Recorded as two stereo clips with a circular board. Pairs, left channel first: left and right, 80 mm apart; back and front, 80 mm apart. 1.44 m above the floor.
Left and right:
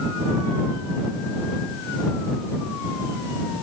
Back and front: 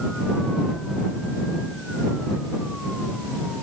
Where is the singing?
No singing in this recording.